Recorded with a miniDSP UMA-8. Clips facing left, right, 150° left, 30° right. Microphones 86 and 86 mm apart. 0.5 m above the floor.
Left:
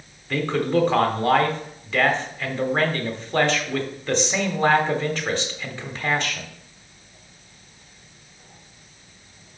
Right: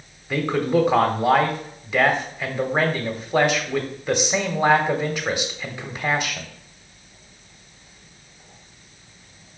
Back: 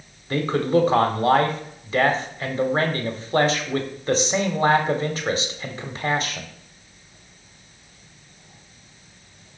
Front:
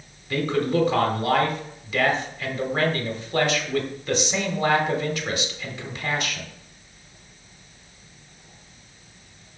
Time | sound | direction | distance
0.3 | a man speaking | 165° right | 1.2 m